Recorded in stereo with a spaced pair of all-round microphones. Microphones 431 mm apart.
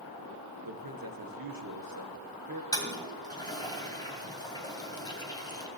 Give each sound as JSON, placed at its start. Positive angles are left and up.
{"t": 0.6, "sound": "a man speaking", "side_deg": -50, "distance_m": 1.4}
{"t": 2.7, "sound": "a toilet flushing", "side_deg": 10, "distance_m": 2.0}